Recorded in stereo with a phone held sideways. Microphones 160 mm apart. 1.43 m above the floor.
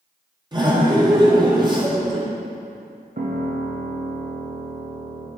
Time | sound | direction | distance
0.5 | laughter | 30° right (ahead or behind) | 1.2 m
3.2 | a piano | 65° right (ahead or behind) | 0.7 m